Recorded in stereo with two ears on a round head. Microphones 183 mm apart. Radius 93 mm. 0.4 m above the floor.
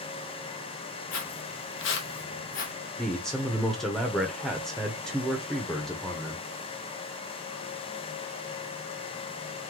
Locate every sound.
1.1 s footsteps: 65° left (ahead or behind), 1.0 m; by 2.7 s 40° left (ahead or behind), 1.2 m
3.0 s a man speaking: 5° left (ahead or behind), 0.8 m